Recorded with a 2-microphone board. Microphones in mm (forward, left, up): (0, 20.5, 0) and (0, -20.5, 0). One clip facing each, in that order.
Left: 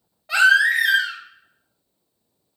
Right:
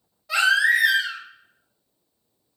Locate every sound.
0.3 s a baby crying: 35° left (ahead or behind), 1.1 m